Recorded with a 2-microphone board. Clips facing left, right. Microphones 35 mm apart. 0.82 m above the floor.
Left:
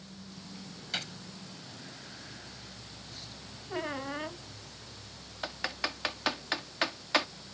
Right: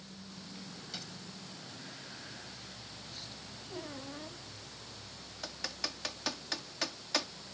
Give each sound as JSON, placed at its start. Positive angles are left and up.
{"t": 0.9, "sound": "a gunshot", "side_deg": 60}
{"t": 3.7, "sound": "a squeak", "side_deg": 80}
{"t": 5.4, "sound": "typing on a keyboard", "side_deg": 40}